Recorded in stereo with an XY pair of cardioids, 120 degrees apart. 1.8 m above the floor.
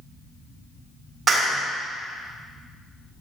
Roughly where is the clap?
Ahead right.